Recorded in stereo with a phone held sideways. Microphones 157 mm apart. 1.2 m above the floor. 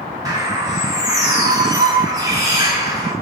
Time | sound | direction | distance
0.2 | a bird | 20° right (ahead or behind) | 1.0 m